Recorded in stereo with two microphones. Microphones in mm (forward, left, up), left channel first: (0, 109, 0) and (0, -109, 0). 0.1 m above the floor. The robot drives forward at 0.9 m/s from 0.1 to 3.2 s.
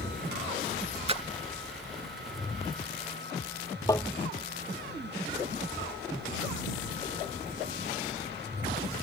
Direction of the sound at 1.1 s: 30° right (ahead or behind).